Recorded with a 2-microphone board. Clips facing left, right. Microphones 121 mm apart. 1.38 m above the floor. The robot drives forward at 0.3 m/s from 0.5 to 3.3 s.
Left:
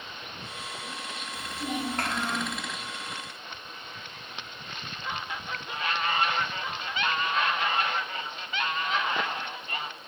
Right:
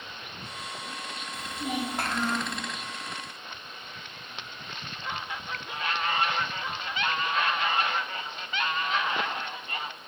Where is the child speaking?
10° right (ahead or behind), 1.1 m; by 2.6 s 5° right (ahead or behind), 1.4 m.